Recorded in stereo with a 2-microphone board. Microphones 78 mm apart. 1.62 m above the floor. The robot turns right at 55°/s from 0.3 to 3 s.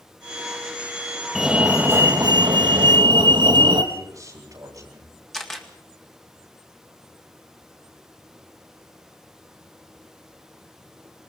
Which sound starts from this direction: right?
A man speaking, at 3.9 s.